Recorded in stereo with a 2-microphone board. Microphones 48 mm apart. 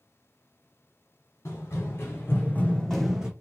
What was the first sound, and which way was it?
Running footsteps, 70° left (ahead or behind).